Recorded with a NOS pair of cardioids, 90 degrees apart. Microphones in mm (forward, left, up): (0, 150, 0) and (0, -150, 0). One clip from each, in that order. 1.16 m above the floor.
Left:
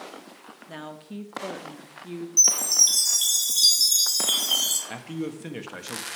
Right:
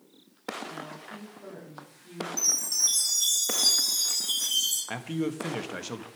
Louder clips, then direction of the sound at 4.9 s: Right 2 dB; 10° right.